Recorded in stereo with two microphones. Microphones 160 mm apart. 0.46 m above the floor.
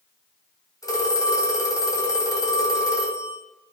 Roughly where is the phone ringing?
Left.